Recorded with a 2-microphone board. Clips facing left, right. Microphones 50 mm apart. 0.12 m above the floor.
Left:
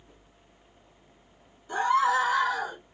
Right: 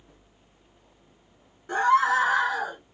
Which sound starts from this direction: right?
A scream, at 1.7 s.